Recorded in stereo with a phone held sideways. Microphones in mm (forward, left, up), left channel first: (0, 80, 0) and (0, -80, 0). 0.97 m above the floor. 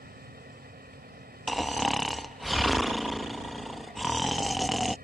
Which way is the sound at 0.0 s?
80° right.